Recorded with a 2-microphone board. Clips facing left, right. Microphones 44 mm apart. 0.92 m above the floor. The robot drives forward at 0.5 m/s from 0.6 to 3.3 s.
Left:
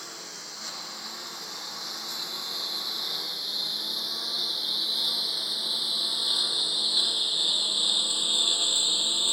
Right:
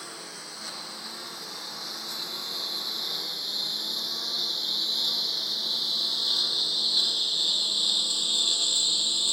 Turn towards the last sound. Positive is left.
turn(degrees=25)  # may be behind; listen again after turning